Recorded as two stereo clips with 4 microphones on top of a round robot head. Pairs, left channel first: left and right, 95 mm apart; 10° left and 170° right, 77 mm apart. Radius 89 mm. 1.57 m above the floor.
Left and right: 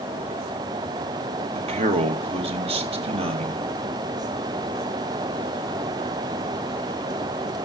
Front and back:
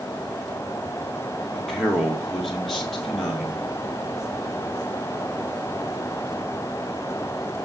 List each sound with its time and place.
1.6 s a man speaking: 75° right, 2.5 m